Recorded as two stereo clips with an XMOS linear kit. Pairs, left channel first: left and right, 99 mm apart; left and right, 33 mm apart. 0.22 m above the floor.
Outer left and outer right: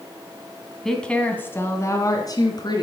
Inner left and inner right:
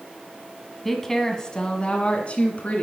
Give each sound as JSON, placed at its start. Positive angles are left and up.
{"t": 0.8, "sound": "a woman speaking", "side_deg": 0, "distance_m": 1.6}